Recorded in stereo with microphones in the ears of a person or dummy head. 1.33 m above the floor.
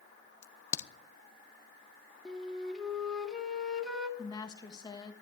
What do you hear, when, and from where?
0.4 s a crack: 15° left (ahead or behind), 0.7 m
2.2 s a flute: 5° left (ahead or behind), 1.7 m
4.2 s a woman speaking: 20° left (ahead or behind), 1.4 m